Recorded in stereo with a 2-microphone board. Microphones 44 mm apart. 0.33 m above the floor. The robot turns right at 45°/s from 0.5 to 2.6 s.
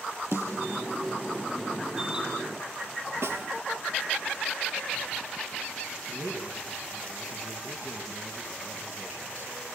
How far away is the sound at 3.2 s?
About 2 m.